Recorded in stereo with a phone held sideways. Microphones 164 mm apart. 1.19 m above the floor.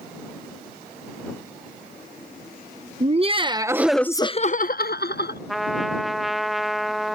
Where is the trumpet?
Centre (ahead or behind).